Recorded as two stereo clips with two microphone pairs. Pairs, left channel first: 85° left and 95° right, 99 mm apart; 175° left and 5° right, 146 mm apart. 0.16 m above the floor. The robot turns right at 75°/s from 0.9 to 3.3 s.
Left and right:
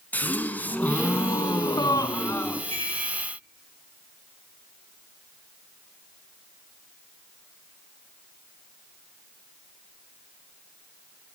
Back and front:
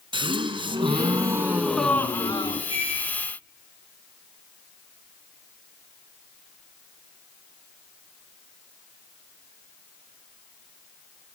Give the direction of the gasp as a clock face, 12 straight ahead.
11 o'clock.